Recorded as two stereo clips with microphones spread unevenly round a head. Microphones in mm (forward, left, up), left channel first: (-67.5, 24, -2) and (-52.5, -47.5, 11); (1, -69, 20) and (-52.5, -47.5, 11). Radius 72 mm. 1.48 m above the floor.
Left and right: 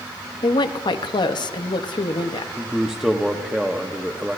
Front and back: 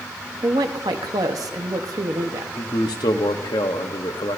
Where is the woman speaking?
120° left, 0.8 m.